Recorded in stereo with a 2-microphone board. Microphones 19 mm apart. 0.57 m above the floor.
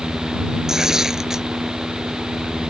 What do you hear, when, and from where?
0.7 s tearing paper: 30° right (ahead or behind)